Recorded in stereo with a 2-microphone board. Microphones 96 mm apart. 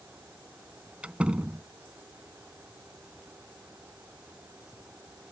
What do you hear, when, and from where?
1.0 s a door slam: 15° right (ahead or behind)